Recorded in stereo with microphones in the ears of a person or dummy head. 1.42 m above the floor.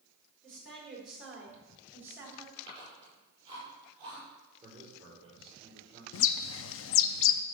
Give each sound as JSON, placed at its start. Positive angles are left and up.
{"t": 0.4, "sound": "a woman speaking", "side_deg": 5, "distance_m": 4.5}
{"t": 2.6, "sound": "chewing", "side_deg": -25, "distance_m": 6.0}
{"t": 4.6, "sound": "a man speaking", "side_deg": -30, "distance_m": 5.5}
{"t": 6.1, "sound": "a bird", "side_deg": 70, "distance_m": 0.6}